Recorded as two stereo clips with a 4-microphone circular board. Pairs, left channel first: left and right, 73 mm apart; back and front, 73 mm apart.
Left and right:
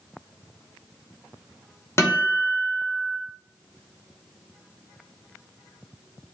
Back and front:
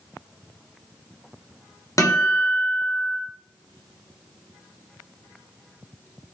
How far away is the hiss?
No hiss in this recording.